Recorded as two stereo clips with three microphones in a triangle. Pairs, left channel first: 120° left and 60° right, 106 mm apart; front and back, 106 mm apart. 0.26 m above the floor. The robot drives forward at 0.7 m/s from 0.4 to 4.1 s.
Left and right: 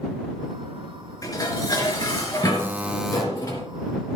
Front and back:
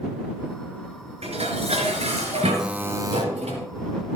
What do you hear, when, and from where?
1.2 s dishes clattering: 175° left, 2.5 m
2.6 s a buzzer: 100° right, 0.6 m; by 3.2 s 150° right, 0.8 m